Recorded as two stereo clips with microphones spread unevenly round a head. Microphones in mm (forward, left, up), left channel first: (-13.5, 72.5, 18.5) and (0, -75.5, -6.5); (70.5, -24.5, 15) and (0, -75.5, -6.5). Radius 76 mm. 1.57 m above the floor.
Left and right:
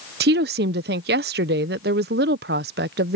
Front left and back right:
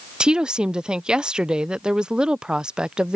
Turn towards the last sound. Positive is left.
turn(degrees=-60)